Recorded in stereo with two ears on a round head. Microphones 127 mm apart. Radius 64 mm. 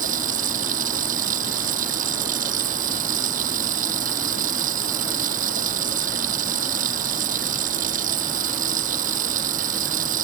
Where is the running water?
60° right (ahead or behind).